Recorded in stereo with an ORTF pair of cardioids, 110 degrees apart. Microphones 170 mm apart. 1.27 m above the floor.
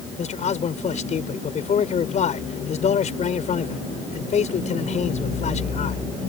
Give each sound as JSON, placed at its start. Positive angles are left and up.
{"t": 0.2, "sound": "a man speaking", "azimuth_deg": 45}